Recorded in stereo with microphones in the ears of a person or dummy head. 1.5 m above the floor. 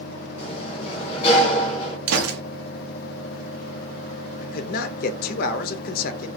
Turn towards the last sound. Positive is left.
turn(degrees=55)  # may be behind; listen again after turning